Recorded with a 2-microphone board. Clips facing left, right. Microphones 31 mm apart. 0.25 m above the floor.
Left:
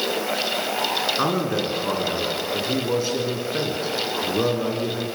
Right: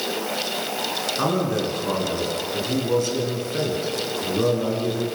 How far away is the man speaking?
About 3.5 m.